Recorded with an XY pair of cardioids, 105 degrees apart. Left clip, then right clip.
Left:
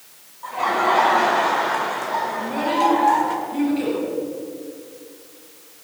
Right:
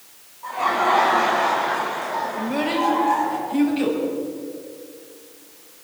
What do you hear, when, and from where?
0.4 s laughter: 10° left, 5.5 m; by 3.4 s 55° left, 4.5 m
2.4 s a child speaking: 35° right, 6 m